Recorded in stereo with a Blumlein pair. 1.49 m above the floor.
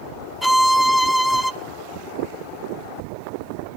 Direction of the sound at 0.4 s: Straight ahead.